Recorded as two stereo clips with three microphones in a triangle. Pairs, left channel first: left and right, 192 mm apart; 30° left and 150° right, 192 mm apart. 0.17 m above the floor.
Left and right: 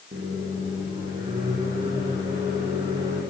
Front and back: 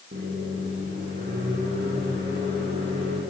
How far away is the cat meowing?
No cat meowing in this recording.